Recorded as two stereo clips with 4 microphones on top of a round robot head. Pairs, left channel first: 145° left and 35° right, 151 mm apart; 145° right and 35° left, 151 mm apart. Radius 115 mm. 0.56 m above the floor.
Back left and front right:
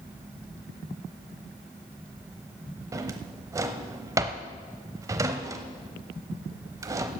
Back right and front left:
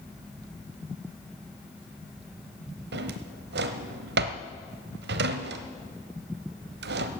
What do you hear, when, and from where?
2.9 s a drawer: 35° left, 0.9 m